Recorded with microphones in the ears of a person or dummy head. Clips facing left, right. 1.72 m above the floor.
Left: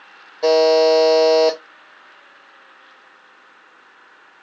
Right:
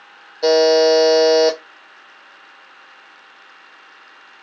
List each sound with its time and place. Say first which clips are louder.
0.4 s a buzzer: right 1 dB; 10° right (ahead or behind), 0.8 m